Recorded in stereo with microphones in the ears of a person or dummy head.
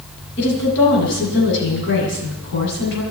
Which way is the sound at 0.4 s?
65° left (ahead or behind).